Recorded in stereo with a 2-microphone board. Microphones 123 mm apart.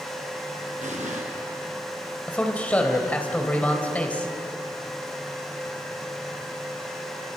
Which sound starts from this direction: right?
An explosion, at 0.8 s.